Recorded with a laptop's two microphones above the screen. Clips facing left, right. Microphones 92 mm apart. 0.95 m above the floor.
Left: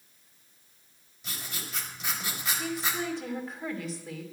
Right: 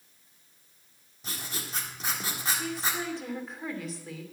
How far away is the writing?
About 1.6 m.